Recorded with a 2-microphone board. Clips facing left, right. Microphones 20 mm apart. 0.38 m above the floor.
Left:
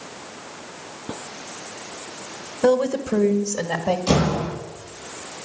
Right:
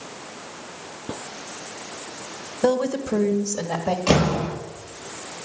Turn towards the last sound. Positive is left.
turn(degrees=-70)  # may be behind; listen again after turning